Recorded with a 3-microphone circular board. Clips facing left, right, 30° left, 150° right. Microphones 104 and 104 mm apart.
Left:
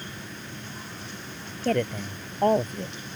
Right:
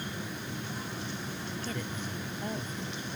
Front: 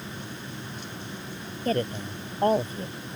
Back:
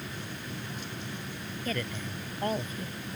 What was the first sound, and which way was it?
A woman speaking, 80° left.